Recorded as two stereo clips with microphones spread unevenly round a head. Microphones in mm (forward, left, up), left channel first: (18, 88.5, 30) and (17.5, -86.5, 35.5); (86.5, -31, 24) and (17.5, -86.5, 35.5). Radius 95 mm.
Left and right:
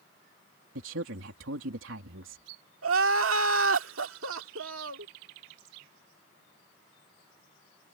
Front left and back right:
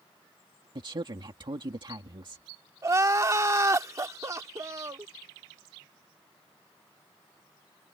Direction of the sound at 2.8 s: 95° right.